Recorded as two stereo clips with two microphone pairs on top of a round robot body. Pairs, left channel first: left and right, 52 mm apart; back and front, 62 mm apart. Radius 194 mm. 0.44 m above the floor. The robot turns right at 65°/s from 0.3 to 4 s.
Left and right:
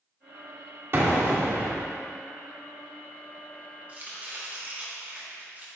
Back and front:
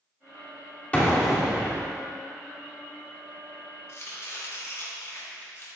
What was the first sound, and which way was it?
An explosion, 120° right.